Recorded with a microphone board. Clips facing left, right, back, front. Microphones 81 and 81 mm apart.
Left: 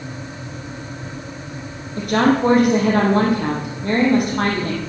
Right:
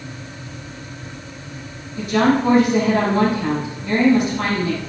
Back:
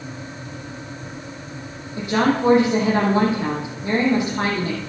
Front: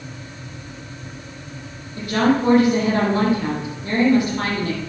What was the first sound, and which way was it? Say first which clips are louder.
A woman speaking: left 1 dB, front 1 dB; 115° left.